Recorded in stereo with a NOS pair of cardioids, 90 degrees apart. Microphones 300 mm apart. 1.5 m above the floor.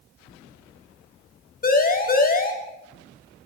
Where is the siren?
30° left, 6.5 m.